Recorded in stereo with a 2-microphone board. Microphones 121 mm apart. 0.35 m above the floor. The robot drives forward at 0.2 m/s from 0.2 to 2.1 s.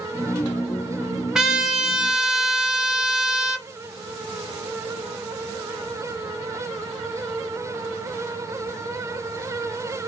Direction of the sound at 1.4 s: 5° right (ahead or behind).